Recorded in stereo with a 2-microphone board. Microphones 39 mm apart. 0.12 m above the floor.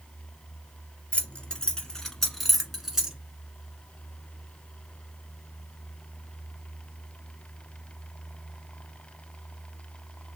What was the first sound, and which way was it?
Keys jangling, 30° left (ahead or behind).